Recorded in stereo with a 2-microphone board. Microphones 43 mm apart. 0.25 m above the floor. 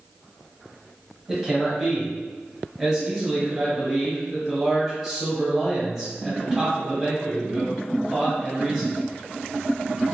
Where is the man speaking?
Centre (ahead or behind), 1.4 m.